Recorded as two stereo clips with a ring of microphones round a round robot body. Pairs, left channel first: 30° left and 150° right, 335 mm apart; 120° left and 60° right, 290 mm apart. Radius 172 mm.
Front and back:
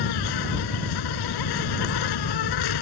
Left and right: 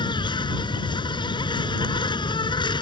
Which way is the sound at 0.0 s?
45° left.